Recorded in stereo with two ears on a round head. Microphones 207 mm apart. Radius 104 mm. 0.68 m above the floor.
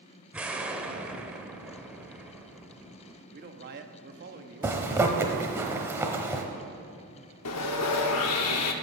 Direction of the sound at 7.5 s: 75° left (ahead or behind).